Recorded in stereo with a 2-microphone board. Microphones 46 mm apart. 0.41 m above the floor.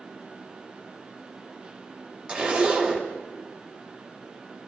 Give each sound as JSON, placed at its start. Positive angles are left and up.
{"t": 2.3, "sound": "a zipper", "side_deg": -25, "distance_m": 1.1}